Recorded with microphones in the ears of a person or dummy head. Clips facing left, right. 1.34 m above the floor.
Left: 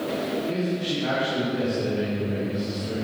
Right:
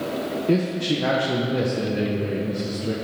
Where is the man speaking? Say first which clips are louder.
Right 5 dB; 60° right (ahead or behind), 1.3 m.